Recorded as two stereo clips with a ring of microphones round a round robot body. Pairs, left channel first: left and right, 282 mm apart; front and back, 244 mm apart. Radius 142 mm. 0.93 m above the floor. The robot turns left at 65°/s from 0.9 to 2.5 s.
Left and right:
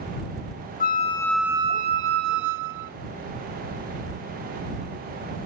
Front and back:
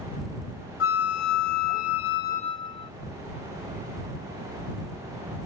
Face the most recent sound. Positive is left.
turn(degrees=-75)